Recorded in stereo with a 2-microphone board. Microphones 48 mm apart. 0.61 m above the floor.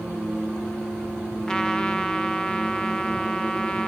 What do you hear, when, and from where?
1.5 s a trumpet: 15° left (ahead or behind), 0.6 m